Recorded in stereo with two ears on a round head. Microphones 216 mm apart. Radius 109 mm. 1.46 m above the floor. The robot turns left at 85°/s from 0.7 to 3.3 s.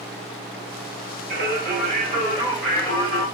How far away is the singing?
About 1.7 m.